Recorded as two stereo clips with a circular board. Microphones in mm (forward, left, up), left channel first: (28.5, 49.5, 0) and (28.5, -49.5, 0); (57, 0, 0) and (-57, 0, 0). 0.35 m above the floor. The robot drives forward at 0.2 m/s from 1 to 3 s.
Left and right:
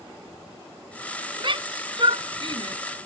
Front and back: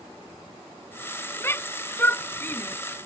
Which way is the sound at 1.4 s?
65° right.